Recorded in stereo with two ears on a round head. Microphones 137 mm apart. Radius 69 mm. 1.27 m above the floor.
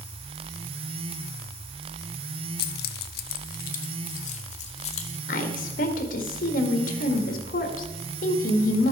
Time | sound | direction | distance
2.6 | keys jangling | 70° left (ahead or behind) | 0.6 m
5.3 | a woman speaking | 65° left (ahead or behind) | 1.8 m